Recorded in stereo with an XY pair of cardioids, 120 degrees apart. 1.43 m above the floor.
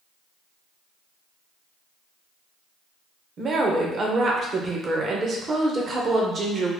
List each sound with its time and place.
3.4 s a woman speaking: 40° right, 0.8 m